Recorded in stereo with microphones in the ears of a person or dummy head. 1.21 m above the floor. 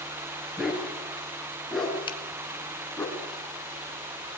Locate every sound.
0.6 s a dog barking: centre (ahead or behind), 4.5 m; by 3.1 s 10° left (ahead or behind), 3 m
2.1 s a finger snap: 25° left (ahead or behind), 1.5 m